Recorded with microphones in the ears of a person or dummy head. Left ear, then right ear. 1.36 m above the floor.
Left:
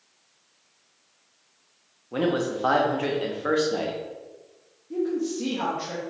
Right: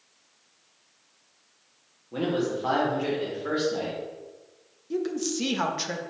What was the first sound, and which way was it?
A man speaking, 40° left (ahead or behind).